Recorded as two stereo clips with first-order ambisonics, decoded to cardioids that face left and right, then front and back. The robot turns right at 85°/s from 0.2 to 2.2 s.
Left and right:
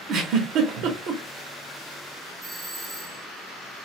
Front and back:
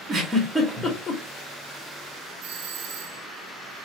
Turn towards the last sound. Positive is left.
turn(degrees=170)